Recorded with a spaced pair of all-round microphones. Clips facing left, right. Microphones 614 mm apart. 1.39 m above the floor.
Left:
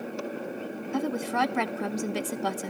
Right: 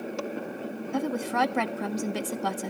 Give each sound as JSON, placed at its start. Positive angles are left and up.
{"t": 0.9, "sound": "a woman speaking", "side_deg": 0, "distance_m": 0.9}